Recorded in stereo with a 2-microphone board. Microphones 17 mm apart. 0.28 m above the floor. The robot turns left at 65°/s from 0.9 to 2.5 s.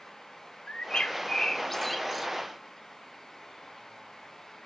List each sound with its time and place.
0.7 s a bird: 65° left (ahead or behind), 0.6 m; by 2.3 s 25° right (ahead or behind), 0.6 m